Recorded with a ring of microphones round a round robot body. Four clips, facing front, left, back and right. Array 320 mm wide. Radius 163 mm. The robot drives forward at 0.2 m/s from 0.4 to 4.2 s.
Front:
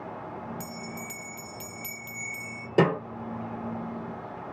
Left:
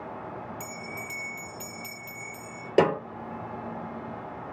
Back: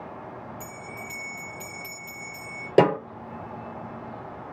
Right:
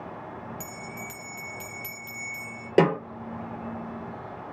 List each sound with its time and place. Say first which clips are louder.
0.6 s a bell: even, front 1 dB; 15° right, 0.9 m; by 2.7 s 30° right, 0.6 m
2.8 s a snare drum: right 1 dB, back 4 dB; 145° right, 1.7 m